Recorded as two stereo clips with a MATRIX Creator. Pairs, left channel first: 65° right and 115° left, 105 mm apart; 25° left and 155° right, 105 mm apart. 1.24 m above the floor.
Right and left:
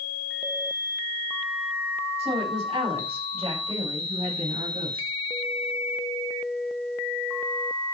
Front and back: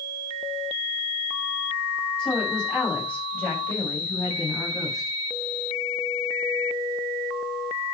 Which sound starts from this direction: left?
A woman speaking, at 2.2 s.